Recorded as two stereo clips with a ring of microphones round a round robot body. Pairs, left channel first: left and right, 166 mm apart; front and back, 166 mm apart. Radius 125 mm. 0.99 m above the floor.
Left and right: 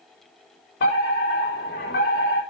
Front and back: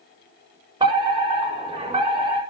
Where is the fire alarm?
125° left, 7 m.